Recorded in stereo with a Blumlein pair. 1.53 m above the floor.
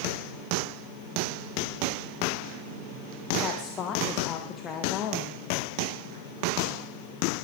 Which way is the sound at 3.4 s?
25° left.